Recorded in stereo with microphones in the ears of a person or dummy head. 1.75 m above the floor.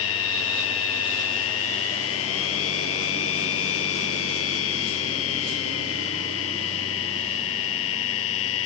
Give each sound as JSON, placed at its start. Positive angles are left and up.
{"t": 0.0, "sound": "a machine running", "side_deg": 80}